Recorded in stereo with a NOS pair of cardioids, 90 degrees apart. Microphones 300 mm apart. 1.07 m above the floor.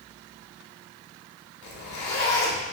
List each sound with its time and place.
1.6 s a zipper: 70° left, 1.2 m